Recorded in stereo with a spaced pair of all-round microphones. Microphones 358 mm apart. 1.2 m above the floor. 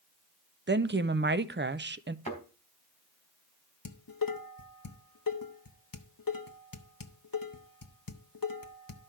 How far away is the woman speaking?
About 0.5 m.